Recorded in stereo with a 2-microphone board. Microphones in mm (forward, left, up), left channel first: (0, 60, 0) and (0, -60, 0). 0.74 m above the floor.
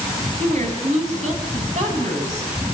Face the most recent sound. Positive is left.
turn(degrees=-80)